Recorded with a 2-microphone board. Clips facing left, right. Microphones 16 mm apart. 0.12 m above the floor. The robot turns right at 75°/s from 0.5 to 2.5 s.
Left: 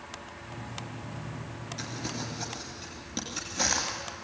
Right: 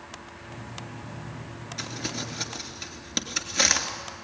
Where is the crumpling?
20° right (ahead or behind), 2 m; by 3.9 s 45° right (ahead or behind), 2 m.